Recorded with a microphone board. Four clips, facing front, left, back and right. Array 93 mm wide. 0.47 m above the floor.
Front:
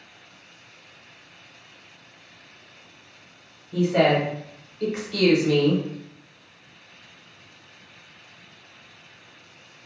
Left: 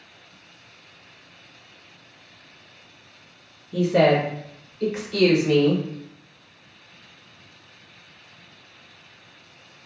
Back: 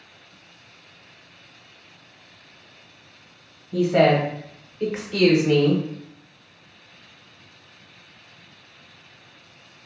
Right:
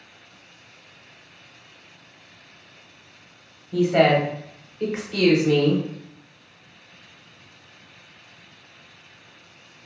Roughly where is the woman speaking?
Right.